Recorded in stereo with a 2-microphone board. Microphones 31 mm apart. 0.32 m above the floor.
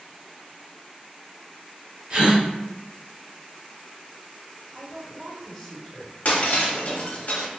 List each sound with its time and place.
2.1 s a gasp: 45° right (ahead or behind), 1.3 m
4.7 s a woman speaking: 20° left (ahead or behind), 1.1 m
6.2 s breaking glass: 60° left (ahead or behind), 0.7 m